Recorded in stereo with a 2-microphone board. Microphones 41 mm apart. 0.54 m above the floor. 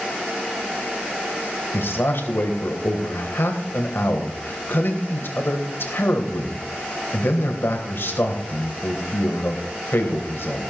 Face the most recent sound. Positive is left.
turn(degrees=65)  # may be behind; listen again after turning